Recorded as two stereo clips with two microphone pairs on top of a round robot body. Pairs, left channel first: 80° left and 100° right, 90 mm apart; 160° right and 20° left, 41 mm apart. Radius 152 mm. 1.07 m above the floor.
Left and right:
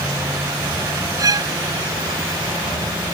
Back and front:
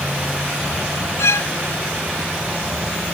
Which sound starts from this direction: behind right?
A violin, at 1.2 s.